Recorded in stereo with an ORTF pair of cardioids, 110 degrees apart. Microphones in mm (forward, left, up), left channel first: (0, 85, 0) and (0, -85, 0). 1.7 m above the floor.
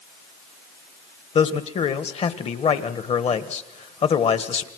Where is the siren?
I don't hear a siren.